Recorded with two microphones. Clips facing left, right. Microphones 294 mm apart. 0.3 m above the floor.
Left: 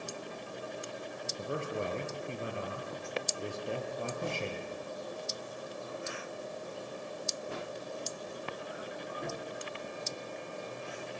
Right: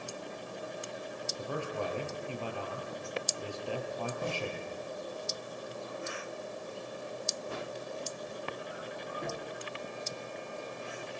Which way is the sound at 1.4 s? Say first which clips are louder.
Left 1 dB; 20° left (ahead or behind).